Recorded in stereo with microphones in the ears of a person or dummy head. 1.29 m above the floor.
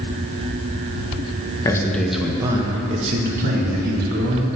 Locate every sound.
1.6 s a man speaking: 15° left (ahead or behind), 1.4 m; by 4.5 s 60° right (ahead or behind), 2.5 m